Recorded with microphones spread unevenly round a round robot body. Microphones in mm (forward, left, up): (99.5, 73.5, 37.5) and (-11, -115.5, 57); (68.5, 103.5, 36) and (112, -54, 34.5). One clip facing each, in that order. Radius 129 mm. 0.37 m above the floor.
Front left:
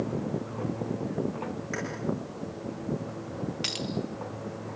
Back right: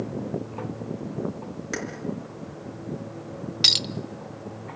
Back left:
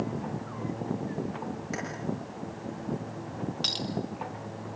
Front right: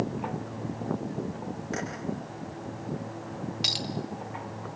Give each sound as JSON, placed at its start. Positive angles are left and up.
{"t": 1.7, "sound": "keys jangling", "azimuth_deg": -170, "distance_m": 4.5}
{"t": 3.6, "sound": "a clink", "azimuth_deg": -155, "distance_m": 0.6}